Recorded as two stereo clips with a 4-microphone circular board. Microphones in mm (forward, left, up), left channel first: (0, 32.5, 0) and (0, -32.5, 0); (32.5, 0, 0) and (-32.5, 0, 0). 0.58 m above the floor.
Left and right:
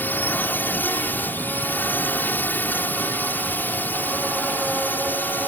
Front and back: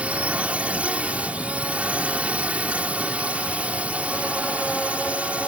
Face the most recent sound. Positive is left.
turn(degrees=125)